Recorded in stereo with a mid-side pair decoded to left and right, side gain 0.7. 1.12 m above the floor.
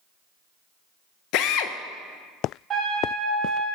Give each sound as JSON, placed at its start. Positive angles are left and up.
{"t": 1.3, "sound": "a drill", "azimuth_deg": 60, "distance_m": 0.6}
{"t": 2.7, "sound": "a trumpet", "azimuth_deg": -20, "distance_m": 4.0}